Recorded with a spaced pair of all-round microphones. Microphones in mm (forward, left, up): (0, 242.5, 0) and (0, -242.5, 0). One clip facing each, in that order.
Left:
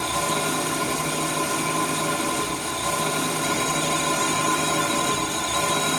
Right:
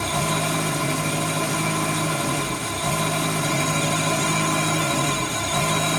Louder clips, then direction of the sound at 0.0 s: Right 1 dB; 75° right (ahead or behind).